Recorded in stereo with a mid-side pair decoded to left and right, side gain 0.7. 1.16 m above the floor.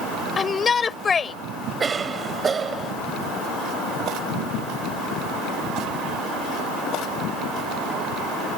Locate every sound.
0.4 s a shout: 25° left
1.8 s a cough: 25° right